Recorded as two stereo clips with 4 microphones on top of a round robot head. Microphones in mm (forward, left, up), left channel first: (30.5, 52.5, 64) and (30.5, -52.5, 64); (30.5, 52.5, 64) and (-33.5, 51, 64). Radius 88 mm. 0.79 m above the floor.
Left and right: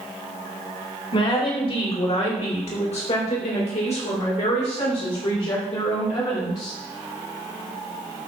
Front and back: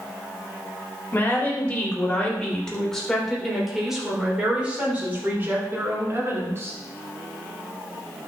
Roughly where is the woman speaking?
Ahead left.